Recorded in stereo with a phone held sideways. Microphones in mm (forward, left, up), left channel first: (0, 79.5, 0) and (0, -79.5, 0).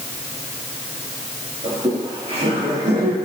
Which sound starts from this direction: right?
Laughter, at 1.6 s.